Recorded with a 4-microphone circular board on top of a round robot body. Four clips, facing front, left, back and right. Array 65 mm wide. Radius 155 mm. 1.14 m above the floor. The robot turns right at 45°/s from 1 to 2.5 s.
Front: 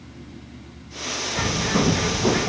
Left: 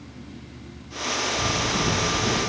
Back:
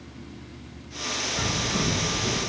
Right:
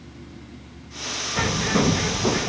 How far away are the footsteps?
No footsteps in this recording.